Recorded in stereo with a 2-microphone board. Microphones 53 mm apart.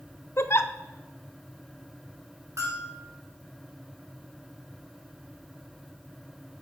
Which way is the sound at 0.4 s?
50° left (ahead or behind).